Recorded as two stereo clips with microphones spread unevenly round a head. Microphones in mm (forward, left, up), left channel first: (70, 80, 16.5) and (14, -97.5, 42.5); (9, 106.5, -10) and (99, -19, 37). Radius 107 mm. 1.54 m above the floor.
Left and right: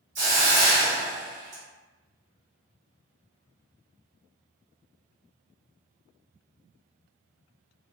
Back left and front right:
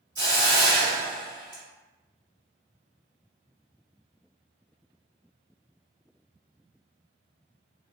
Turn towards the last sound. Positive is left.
turn(degrees=-140)